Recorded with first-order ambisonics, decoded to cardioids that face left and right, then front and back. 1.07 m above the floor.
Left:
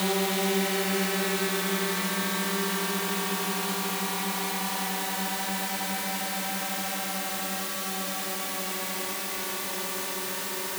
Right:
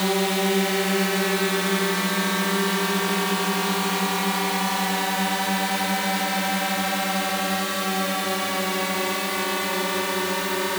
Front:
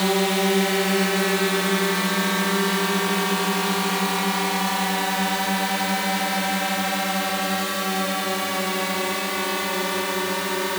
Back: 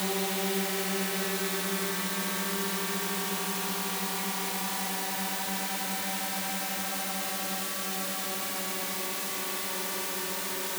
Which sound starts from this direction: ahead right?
A drone, at 0.0 s.